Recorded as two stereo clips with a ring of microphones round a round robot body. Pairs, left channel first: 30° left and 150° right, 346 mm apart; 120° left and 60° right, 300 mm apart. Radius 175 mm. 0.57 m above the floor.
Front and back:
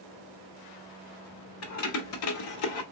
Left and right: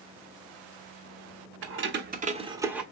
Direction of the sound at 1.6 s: 15° right.